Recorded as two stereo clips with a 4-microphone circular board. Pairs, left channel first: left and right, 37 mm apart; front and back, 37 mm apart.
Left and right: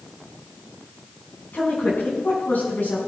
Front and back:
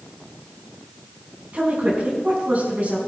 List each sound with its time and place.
1.5 s a woman speaking: 130° left, 5.5 m